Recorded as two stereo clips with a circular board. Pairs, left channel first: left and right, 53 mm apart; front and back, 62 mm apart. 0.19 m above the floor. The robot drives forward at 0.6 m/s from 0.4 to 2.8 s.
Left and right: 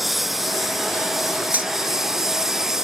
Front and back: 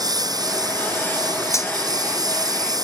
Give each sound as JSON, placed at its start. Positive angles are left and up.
{"t": 0.0, "sound": "a lawn mower", "azimuth_deg": -175}
{"t": 1.5, "sound": "cutlery clinking", "azimuth_deg": -30}